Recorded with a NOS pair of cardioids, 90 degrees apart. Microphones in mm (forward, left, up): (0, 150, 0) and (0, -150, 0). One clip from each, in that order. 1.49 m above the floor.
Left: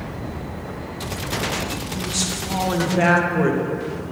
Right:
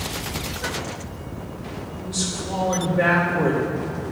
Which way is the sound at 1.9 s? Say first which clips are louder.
Left 2 dB; 40° left.